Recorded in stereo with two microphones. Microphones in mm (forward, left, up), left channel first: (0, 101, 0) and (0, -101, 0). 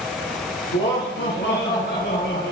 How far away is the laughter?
About 3 m.